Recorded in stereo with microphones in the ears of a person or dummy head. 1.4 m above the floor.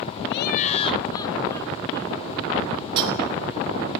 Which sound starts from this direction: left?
Laughter, at 0.3 s.